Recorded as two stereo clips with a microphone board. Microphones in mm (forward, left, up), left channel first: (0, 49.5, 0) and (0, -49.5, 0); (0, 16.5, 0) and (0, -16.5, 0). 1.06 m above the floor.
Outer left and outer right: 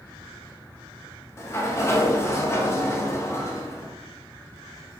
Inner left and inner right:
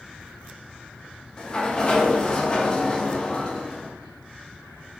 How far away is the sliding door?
About 0.5 m.